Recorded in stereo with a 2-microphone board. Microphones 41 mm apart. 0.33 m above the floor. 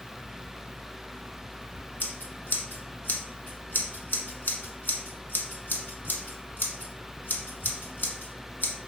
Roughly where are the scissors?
Left.